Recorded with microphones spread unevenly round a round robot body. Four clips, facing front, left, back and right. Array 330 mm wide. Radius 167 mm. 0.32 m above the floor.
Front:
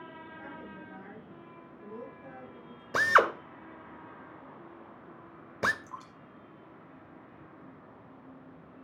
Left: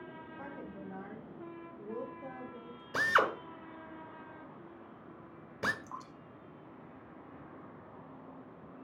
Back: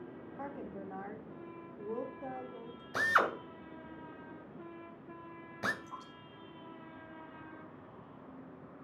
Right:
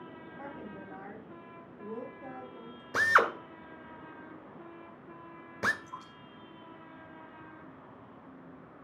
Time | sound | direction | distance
0.4 | a woman speaking | 170° left | 2.5 m
2.9 | a drill | 5° right | 1.6 m
5.8 | dripping | 60° left | 4 m